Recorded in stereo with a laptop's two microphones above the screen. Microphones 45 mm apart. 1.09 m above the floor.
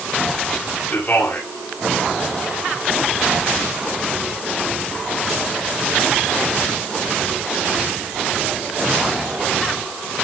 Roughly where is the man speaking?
Left.